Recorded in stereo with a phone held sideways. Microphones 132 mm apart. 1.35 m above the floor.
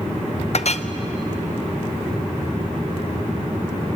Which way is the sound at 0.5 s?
55° left (ahead or behind).